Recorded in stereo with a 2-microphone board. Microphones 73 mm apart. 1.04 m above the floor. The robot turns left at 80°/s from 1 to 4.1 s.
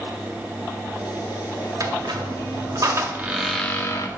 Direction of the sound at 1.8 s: 45° right.